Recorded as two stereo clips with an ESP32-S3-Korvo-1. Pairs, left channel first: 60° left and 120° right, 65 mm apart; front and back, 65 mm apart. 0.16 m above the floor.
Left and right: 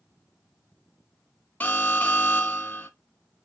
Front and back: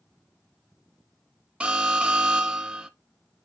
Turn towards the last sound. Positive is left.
turn(degrees=115)